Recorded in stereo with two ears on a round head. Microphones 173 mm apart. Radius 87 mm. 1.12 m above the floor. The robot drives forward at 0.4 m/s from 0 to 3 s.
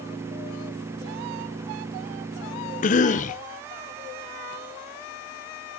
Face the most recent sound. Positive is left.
turn(degrees=40)  # may be behind; listen again after turning